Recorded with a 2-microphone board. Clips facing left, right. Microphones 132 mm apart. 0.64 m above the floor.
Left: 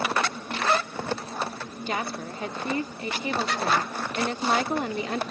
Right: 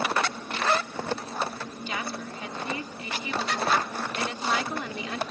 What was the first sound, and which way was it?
A woman speaking, 45° left (ahead or behind).